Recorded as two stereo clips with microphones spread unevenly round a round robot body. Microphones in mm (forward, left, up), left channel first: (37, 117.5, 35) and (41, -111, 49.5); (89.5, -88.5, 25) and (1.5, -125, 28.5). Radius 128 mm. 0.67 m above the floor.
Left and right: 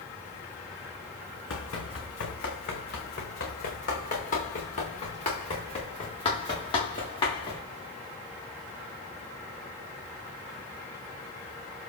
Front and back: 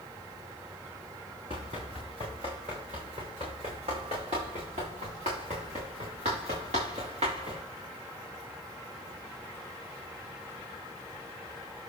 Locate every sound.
1.5 s running footsteps: 135° left, 3.5 m; by 7.6 s 165° left, 5.5 m